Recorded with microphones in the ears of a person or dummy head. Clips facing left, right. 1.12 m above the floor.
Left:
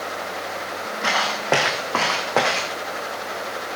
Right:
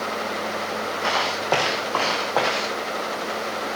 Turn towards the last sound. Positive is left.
turn(degrees=35)  # may be behind; listen again after turning